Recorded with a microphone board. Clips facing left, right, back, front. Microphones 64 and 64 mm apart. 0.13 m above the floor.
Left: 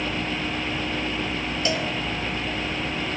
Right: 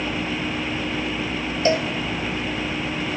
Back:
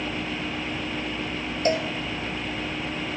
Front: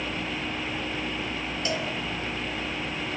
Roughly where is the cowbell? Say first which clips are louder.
Right 7 dB, back 8 dB; behind right.